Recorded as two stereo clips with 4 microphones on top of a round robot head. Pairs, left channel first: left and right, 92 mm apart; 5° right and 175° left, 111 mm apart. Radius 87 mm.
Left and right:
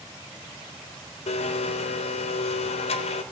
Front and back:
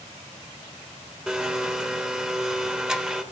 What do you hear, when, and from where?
1.3 s a blender: 95° left, 0.7 m